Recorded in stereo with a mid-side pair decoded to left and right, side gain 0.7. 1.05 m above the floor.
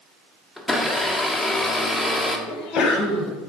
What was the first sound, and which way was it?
A blender, 5° left.